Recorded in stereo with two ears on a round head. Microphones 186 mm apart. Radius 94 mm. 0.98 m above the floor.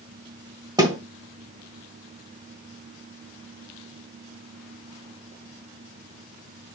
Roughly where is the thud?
Centre.